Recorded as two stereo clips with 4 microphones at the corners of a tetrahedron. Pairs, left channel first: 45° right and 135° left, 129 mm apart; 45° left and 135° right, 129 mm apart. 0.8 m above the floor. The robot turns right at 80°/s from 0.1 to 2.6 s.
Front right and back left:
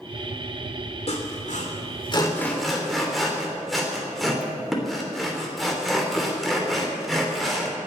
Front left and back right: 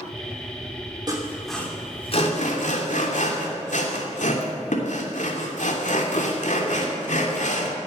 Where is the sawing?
75° right, 3 m; by 7.8 s 45° left, 3 m.